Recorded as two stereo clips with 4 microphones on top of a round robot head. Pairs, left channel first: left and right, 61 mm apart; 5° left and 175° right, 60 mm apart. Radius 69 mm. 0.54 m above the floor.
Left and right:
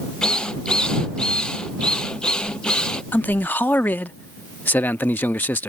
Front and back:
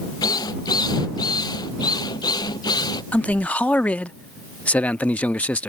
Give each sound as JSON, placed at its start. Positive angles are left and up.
{"t": 0.2, "sound": "a drill", "azimuth_deg": 15}
{"t": 3.1, "sound": "a man speaking", "azimuth_deg": 60}